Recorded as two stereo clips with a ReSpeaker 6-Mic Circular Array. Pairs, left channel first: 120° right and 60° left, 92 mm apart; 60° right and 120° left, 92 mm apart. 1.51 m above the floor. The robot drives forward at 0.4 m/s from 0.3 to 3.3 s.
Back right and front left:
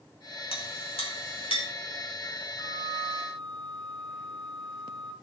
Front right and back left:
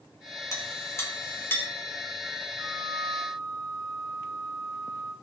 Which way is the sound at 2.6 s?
155° left.